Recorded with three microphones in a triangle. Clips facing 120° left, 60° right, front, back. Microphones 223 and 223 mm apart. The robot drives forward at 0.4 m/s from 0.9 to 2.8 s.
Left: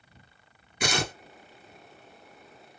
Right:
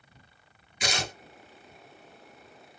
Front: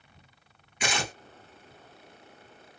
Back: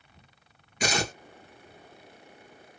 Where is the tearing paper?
140° left, 0.9 m.